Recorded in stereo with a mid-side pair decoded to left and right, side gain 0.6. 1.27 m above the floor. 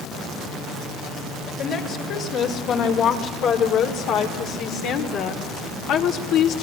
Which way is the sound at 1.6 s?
55° left.